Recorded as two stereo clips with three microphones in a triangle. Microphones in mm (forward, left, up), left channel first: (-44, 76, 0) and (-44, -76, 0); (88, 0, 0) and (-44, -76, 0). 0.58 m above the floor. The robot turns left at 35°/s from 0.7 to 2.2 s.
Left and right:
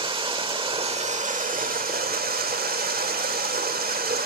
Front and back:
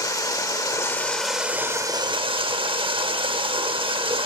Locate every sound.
0.0 s running water: 40° right, 0.8 m; by 4.3 s 95° right, 0.8 m